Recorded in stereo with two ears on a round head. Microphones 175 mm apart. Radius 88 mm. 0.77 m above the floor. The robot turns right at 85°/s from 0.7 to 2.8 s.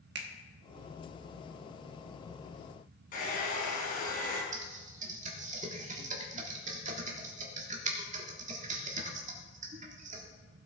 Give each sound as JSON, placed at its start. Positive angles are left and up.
{"t": 0.1, "sound": "a finger snap", "side_deg": -60, "distance_m": 1.3}
{"t": 3.1, "sound": "a hair dryer", "side_deg": 45, "distance_m": 3.5}
{"t": 4.5, "sound": "typing on a keyboard", "side_deg": -40, "distance_m": 1.6}